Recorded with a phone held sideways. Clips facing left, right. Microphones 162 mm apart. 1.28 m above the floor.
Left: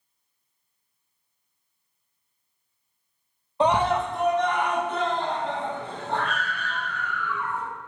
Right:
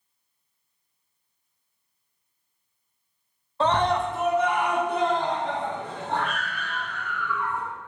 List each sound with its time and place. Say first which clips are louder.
3.6 s a scream: left 1 dB; 15° left (ahead or behind), 0.5 m; by 7.6 s 20° right (ahead or behind), 3.5 m